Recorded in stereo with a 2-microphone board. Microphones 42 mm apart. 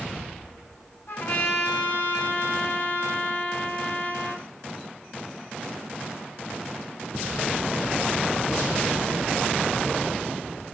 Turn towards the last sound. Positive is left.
turn(degrees=65)  # may be behind; listen again after turning